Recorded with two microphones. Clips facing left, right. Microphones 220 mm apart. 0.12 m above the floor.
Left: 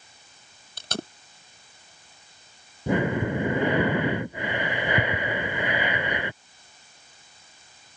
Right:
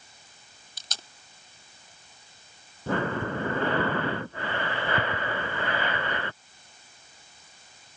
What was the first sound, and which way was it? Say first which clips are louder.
Tape being pulled: left 17 dB; 70° left (ahead or behind).